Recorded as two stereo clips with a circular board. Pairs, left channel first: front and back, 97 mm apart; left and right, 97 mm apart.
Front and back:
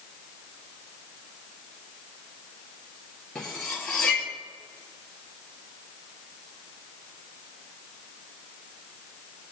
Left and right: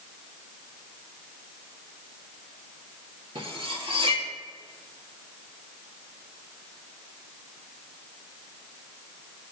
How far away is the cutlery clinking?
About 1.8 m.